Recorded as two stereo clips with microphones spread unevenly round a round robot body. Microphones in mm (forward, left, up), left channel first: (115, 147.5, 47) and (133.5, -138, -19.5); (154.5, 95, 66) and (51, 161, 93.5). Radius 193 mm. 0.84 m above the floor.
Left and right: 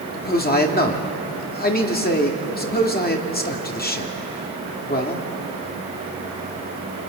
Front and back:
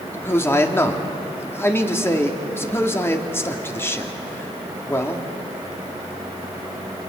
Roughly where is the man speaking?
Ahead left.